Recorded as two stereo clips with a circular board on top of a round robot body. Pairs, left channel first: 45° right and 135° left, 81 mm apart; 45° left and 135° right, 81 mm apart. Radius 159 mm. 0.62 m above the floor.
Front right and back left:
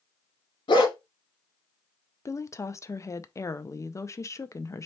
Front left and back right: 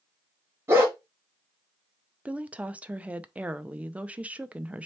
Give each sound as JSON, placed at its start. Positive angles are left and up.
{"t": 0.7, "sound": "a dog barking", "azimuth_deg": -75, "distance_m": 1.0}
{"t": 2.2, "sound": "a woman speaking", "azimuth_deg": -70, "distance_m": 0.7}